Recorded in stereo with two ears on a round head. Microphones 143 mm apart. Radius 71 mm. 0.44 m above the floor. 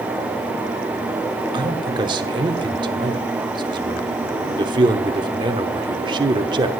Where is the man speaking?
30° right (ahead or behind), 1.0 m.